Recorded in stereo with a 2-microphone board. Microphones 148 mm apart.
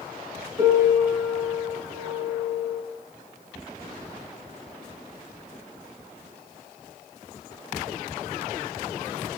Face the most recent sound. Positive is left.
turn(degrees=-25)  # may be behind; listen again after turning